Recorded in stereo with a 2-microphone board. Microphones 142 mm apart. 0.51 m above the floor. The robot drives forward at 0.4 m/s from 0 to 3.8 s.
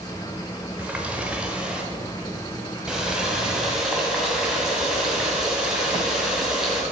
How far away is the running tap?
About 1.0 m.